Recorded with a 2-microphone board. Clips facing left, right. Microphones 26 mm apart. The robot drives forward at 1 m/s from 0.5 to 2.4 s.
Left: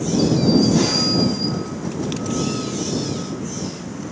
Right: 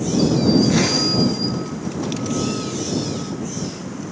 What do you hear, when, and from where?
0.6 s a zipper: 60° right (ahead or behind), 1.7 m; by 1.6 s 45° right (ahead or behind), 2 m